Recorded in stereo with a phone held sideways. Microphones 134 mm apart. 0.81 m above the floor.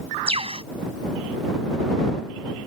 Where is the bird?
45° right (ahead or behind).